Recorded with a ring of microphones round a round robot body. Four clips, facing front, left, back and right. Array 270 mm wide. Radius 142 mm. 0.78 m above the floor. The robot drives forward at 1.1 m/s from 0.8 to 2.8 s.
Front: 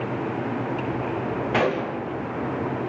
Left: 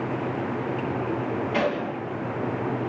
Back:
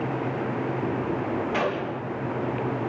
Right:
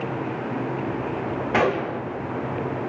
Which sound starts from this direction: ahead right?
A gunshot, at 1.5 s.